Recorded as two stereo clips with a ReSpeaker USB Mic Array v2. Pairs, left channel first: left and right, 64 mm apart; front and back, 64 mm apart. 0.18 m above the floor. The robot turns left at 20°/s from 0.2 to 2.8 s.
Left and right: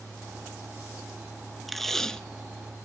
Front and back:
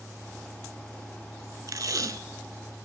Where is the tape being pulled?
Straight behind, 0.6 m; by 2.2 s 170° left, 0.6 m.